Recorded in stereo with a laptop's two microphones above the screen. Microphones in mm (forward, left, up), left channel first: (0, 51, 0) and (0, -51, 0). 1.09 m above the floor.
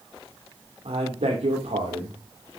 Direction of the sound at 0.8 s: 85° right.